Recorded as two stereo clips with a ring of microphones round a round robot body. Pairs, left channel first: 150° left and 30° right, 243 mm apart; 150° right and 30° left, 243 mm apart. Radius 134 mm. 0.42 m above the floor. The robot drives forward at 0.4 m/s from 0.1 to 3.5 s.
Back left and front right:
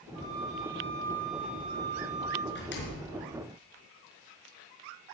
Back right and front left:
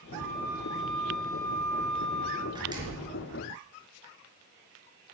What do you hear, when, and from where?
0.1 s a flute: 70° right, 4 m; by 2.5 s 85° right, 4 m
2.5 s a door slam: 105° left, 4 m